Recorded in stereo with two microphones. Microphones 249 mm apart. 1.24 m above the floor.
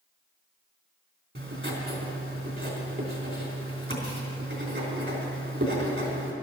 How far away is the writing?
About 3.5 m.